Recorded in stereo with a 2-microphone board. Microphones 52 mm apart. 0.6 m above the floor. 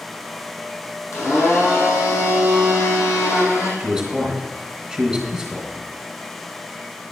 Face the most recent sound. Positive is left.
turn(degrees=-5)  # may be behind; listen again after turning